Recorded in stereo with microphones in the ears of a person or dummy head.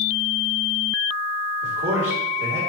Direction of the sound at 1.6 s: 70° right (ahead or behind).